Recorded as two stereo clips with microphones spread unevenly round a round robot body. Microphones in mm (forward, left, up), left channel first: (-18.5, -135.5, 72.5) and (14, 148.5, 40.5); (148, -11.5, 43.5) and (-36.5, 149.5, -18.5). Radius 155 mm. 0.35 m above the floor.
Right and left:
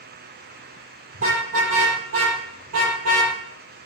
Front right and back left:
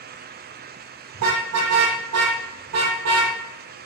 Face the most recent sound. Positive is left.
turn(degrees=120)